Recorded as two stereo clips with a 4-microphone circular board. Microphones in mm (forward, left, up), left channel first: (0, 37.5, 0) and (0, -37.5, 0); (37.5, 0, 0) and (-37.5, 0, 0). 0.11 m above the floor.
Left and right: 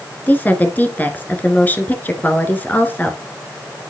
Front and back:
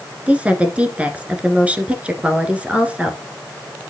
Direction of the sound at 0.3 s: 125° left.